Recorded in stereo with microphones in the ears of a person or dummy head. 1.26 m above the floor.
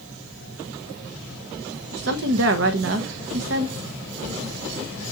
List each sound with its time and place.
1.9 s a woman speaking: 70° right (ahead or behind), 0.9 m